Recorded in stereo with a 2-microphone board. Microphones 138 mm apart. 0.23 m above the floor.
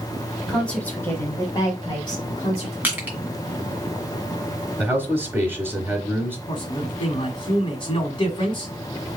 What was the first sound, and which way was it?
A woman speaking, 5° left (ahead or behind).